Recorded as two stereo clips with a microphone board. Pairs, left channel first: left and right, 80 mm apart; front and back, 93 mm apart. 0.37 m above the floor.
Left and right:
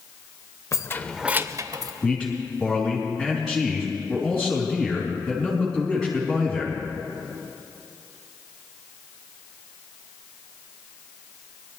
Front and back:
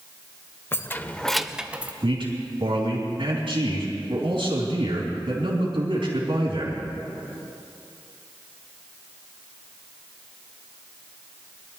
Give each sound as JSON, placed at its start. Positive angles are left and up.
{"t": 0.7, "sound": "keys jangling", "azimuth_deg": 55, "distance_m": 0.7}
{"t": 2.0, "sound": "a man speaking", "azimuth_deg": 180, "distance_m": 3.5}